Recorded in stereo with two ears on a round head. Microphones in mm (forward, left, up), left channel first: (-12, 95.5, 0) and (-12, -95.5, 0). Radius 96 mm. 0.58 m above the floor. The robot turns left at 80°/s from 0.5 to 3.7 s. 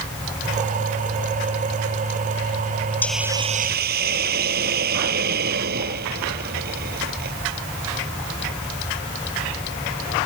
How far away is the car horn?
I don't hear a car horn.